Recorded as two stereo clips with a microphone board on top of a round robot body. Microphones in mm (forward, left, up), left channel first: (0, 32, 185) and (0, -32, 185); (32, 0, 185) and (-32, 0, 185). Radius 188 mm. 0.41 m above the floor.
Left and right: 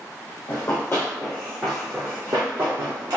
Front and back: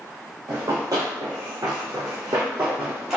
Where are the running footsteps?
140° left, 1.0 m; by 3.2 s 100° right, 0.8 m.